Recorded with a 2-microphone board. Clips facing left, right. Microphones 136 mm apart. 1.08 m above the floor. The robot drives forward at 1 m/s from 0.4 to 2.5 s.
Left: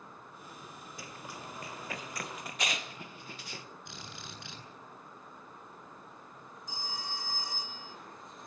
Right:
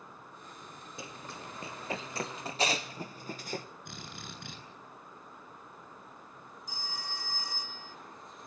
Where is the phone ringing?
20° left (ahead or behind), 2.0 m.